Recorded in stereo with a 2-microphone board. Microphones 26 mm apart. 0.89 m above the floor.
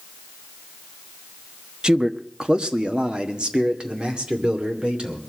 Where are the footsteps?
No footsteps in this recording.